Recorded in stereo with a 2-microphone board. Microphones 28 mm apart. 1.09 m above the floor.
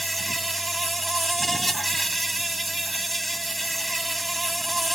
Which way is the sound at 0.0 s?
Centre (ahead or behind).